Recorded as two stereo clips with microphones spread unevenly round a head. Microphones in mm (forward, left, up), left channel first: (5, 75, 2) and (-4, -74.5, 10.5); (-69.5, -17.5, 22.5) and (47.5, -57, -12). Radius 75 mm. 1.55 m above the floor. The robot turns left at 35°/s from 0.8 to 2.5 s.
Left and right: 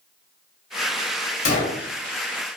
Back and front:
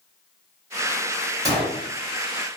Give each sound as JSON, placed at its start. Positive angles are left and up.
{"t": 1.4, "sound": "a gunshot", "azimuth_deg": 55, "distance_m": 1.6}